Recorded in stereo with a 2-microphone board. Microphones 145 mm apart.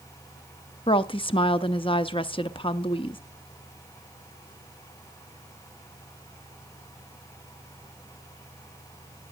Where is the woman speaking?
35° left (ahead or behind), 0.7 m.